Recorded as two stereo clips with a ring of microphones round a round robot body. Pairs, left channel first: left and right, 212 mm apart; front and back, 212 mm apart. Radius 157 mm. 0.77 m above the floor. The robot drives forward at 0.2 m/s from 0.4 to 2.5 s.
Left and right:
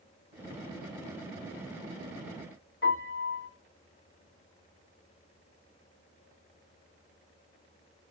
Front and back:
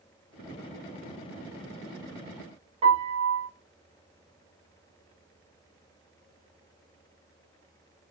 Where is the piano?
125° left, 1.2 m.